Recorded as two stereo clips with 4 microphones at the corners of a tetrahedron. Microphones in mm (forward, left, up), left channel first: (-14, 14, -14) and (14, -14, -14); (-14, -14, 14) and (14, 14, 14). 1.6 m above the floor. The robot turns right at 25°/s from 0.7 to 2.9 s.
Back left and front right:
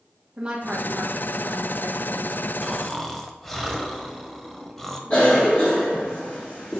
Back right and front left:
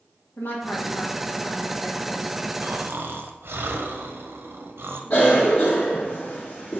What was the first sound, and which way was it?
A woman speaking, 110° right.